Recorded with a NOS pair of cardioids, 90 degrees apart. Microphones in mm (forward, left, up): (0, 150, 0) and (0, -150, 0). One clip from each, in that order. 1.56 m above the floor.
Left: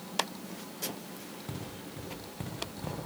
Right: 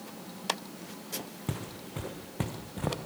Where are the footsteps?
60° right, 6 m.